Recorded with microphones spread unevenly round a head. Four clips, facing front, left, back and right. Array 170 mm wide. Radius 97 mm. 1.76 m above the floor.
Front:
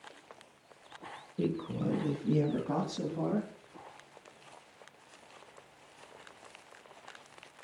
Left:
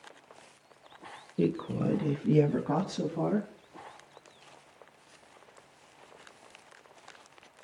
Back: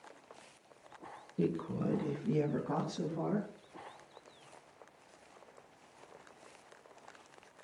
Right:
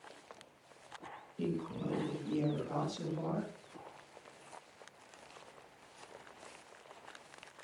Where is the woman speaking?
90° left, 1.8 m; by 3.5 s 75° left, 4.5 m.